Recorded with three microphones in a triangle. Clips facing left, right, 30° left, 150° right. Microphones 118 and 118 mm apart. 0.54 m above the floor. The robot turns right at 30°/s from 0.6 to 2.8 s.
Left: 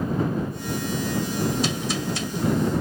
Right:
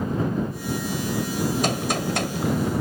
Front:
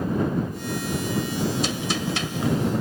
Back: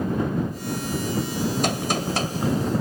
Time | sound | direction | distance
1.6 | a gunshot | 120° right | ?